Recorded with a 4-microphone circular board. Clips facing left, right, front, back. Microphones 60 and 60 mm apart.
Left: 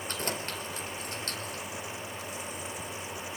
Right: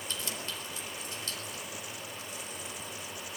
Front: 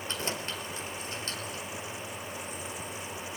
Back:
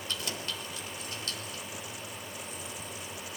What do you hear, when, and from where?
0.1 s keys jangling: 55° left, 4 m